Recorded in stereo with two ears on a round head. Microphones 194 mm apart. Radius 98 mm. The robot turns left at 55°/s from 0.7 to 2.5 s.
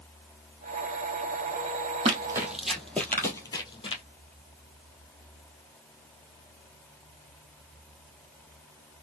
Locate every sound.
2.0 s running footsteps: 25° right (ahead or behind), 1.7 m; by 4.0 s 30° left (ahead or behind), 1.5 m